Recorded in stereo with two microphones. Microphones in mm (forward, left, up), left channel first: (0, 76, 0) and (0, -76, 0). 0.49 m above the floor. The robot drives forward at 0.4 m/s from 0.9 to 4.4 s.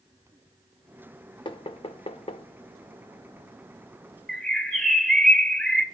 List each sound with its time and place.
1.4 s knocking: 35° left (ahead or behind), 0.8 m; by 2.5 s 40° left (ahead or behind), 0.7 m
4.3 s a bird: 5° left (ahead or behind), 1.0 m